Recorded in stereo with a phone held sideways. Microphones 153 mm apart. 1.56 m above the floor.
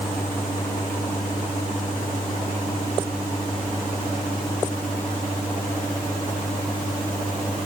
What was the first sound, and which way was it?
Only background noise.